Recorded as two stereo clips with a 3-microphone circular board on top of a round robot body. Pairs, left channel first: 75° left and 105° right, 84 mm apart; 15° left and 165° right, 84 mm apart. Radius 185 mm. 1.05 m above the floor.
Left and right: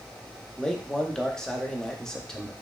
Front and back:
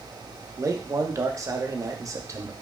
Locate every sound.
0.6 s a man speaking: 155° left, 0.7 m